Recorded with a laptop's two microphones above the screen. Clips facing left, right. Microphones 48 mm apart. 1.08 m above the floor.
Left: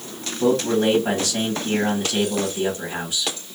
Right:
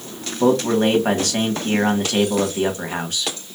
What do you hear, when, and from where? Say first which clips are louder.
0.4 s a man speaking: right 2 dB; 55° right (ahead or behind), 1.4 m